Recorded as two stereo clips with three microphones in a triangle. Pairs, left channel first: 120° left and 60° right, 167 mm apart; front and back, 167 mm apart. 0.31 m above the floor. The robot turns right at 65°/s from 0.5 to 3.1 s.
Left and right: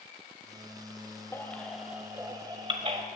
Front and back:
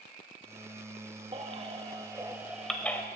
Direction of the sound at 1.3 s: Straight behind.